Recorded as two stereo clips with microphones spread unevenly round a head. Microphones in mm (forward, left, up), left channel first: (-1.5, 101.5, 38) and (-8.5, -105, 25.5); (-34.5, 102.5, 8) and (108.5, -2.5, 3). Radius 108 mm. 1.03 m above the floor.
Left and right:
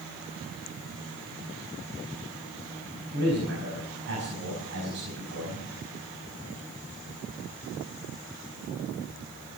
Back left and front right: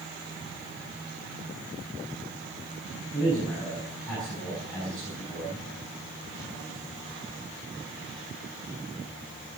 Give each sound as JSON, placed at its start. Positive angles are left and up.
{"t": 3.1, "sound": "a man speaking", "azimuth_deg": -130, "distance_m": 6.0}